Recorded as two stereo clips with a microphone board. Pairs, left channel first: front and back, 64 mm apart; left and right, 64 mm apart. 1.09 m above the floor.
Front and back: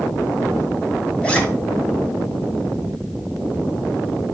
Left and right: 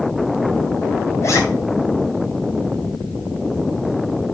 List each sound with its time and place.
1.2 s a zipper: 70° left, 1.2 m